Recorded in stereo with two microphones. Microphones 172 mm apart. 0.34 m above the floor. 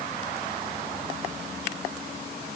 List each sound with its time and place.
Only background noise.